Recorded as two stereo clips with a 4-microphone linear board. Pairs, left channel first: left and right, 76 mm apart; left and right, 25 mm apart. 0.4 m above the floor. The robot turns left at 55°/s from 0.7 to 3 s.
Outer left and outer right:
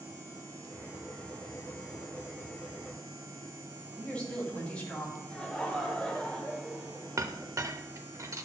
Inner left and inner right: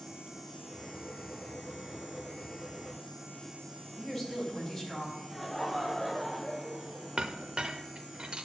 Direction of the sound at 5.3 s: 15° left (ahead or behind).